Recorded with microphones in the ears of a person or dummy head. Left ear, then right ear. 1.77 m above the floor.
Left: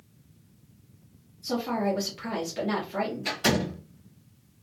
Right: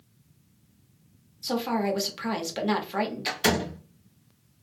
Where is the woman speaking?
40° right (ahead or behind), 1.1 m.